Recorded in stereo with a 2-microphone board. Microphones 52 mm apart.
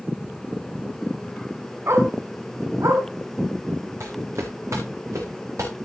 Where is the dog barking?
55° right (ahead or behind), 2.5 m; by 3.0 s 65° right (ahead or behind), 3 m.